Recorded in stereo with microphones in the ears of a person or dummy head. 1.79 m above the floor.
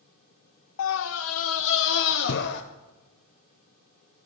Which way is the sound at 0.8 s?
70° left (ahead or behind).